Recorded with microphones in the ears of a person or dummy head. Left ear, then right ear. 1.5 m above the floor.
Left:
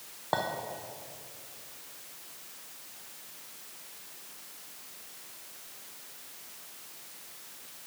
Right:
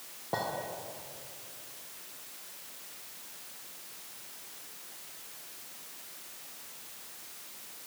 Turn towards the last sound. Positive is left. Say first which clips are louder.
# left 3 dB
turn(degrees=20)  # may be behind; listen again after turning